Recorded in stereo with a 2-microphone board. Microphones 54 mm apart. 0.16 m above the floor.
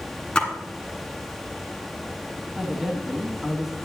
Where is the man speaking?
10° right (ahead or behind), 1.1 m.